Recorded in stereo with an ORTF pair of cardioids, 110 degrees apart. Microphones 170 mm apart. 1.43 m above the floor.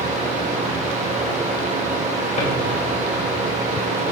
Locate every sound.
0.0 s a fan: 45° right, 1.8 m
2.4 s a drawer: 45° left, 3.5 m